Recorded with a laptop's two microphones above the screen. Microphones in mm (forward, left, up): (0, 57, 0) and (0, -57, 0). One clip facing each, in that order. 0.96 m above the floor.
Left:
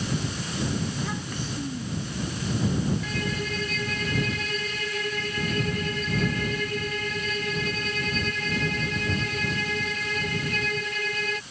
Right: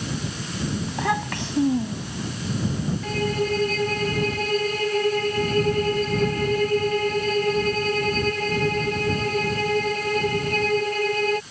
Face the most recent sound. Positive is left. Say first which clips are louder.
# right 7 dB
turn(degrees=-45)  # may be behind; listen again after turning